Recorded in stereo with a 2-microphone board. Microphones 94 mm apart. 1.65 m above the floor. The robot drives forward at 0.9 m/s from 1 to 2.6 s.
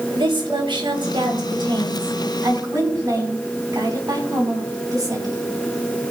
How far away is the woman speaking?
About 3 m.